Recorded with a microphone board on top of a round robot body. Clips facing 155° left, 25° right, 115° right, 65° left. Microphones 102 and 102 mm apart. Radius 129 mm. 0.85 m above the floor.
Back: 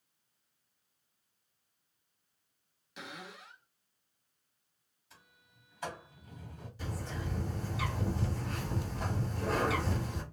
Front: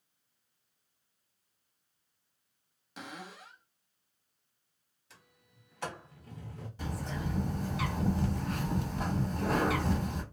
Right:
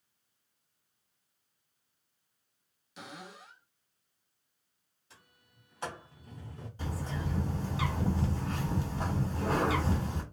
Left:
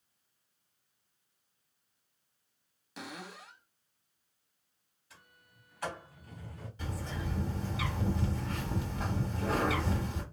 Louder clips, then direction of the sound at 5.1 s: Front 1 dB, left 2 dB; 50° right.